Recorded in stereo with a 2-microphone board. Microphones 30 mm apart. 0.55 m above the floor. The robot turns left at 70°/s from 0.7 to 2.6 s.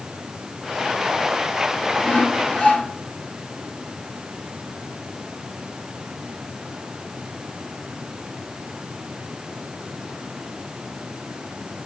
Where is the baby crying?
No baby crying in this recording.